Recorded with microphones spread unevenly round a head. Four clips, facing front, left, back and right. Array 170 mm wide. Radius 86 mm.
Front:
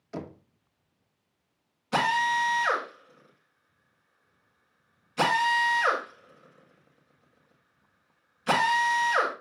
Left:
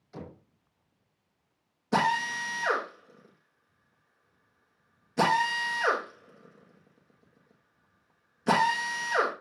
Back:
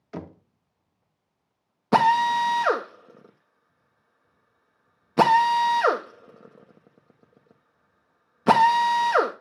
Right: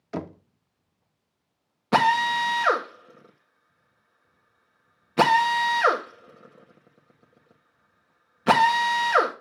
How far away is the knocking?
About 0.9 m.